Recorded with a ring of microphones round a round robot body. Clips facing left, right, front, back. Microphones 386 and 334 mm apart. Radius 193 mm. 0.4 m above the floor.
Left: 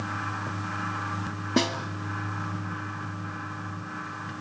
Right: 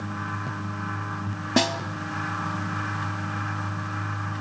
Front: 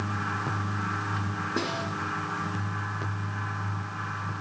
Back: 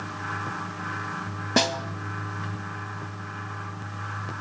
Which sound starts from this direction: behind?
A snare drum, at 1.6 s.